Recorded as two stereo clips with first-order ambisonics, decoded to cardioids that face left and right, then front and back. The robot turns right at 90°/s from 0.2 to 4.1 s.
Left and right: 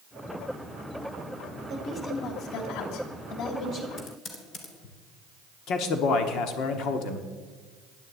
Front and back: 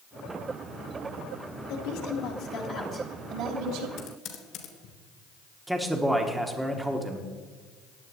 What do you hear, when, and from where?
1.7 s a woman speaking: 35° right, 3 m; by 3.9 s 160° left, 3 m
4.0 s typing on a keyboard: 30° left, 2.5 m; by 5.0 s 40° left, 2.5 m
5.7 s a man speaking: 100° left, 1.1 m